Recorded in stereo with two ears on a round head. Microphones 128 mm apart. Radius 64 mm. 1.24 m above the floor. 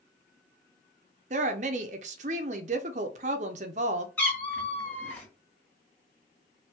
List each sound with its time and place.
1.3 s a woman speaking: 50° right (ahead or behind), 0.5 m
4.2 s a cat meowing: 15° left (ahead or behind), 1.7 m